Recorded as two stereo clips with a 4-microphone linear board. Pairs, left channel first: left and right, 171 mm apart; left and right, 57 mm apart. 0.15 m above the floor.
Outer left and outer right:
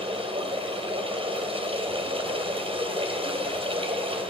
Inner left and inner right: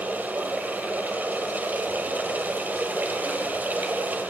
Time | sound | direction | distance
0.0 | running water | 30° right (ahead or behind) | 2.5 m